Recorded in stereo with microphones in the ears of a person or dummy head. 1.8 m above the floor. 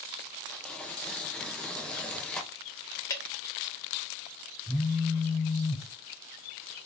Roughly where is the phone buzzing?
Centre.